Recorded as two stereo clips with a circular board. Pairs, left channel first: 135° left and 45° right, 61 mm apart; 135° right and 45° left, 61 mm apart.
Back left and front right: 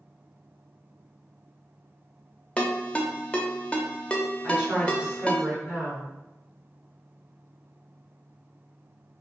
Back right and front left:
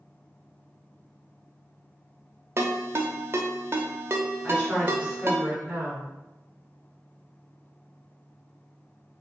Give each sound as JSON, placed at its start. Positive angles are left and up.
{"t": 2.6, "sound": "a ringtone", "azimuth_deg": 70, "distance_m": 0.5}
{"t": 4.4, "sound": "a woman speaking", "azimuth_deg": 5, "distance_m": 1.5}